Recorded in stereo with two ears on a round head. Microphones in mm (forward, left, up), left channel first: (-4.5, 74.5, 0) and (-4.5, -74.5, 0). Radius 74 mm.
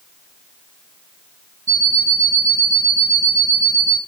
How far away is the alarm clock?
About 2 m.